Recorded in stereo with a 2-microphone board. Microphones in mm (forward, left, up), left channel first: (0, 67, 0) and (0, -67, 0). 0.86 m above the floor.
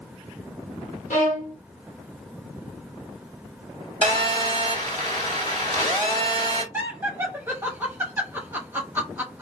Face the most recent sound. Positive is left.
turn(degrees=-15)  # may be behind; listen again after turning